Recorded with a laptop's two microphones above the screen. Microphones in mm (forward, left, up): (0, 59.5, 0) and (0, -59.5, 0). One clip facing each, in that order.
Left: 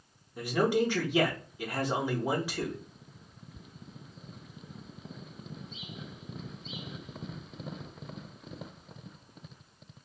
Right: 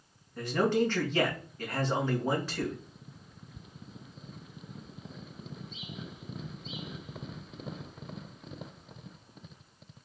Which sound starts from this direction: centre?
A man speaking, at 0.4 s.